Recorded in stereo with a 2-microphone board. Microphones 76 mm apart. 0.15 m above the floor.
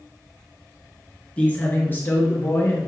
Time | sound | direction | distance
1.4 | a man speaking | 20° left (ahead or behind) | 1.9 m